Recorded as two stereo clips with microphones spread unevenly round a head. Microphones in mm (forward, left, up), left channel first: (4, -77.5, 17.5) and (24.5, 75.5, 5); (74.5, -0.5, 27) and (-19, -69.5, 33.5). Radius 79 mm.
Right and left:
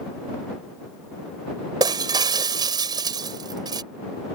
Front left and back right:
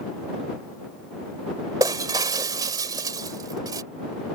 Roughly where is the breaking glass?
Behind left.